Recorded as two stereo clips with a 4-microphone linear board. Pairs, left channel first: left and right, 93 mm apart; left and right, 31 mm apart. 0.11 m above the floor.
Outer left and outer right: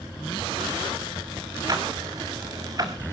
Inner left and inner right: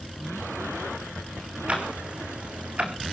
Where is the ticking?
40° right (ahead or behind), 1.6 m.